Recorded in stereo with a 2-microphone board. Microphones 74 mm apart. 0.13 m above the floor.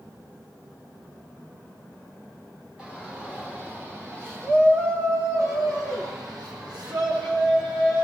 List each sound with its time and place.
2.8 s a shout: 20° right (ahead or behind), 6.5 m; by 8.1 s 75° right (ahead or behind), 7.5 m